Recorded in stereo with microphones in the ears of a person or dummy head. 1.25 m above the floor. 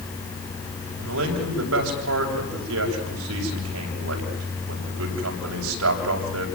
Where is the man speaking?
85° right, 7 m.